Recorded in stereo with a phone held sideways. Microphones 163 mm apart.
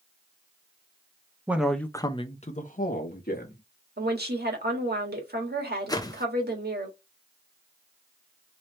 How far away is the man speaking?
About 0.7 m.